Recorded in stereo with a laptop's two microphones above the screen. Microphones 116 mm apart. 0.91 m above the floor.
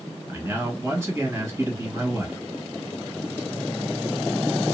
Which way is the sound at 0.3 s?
25° right (ahead or behind).